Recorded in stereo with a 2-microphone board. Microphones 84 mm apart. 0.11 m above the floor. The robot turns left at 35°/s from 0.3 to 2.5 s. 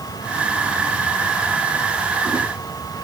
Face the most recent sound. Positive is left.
No sound to turn to.